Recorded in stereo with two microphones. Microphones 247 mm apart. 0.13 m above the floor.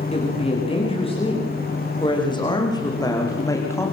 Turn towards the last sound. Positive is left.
turn(degrees=10)  # may be behind; listen again after turning